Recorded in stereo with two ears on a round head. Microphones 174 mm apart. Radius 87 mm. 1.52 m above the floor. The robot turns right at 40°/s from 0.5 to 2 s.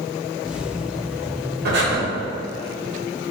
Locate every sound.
1.6 s breathing: 60° right (ahead or behind), 1.6 m; by 2.0 s 70° right (ahead or behind), 1.6 m